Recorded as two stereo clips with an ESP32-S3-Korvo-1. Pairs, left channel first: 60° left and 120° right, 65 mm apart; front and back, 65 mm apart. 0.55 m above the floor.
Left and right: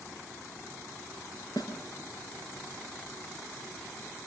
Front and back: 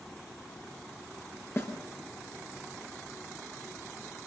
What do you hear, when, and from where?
1.6 s a snare drum: 55° left, 5 m